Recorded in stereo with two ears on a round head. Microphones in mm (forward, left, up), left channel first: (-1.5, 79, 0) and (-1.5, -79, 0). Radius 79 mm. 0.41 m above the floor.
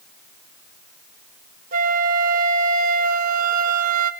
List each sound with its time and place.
1.7 s a flute: 50° right (ahead or behind), 0.7 m